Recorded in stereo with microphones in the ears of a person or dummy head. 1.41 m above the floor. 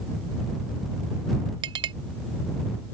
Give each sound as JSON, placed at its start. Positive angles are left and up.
{"t": 1.6, "sound": "a clink", "side_deg": -30}